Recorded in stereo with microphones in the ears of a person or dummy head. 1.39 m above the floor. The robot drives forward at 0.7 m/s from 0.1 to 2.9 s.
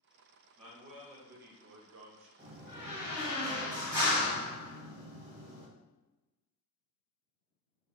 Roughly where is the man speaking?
Right.